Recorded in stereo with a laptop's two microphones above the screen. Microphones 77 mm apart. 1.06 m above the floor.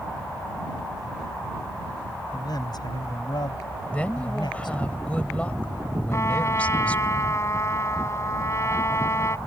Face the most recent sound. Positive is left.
turn(degrees=40)  # may be behind; listen again after turning